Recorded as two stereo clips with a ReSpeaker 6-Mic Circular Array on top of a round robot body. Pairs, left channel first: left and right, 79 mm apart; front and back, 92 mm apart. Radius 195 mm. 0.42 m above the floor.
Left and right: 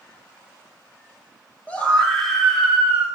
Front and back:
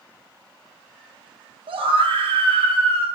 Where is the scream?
160° left, 3 m; by 3.1 s 165° right, 4 m.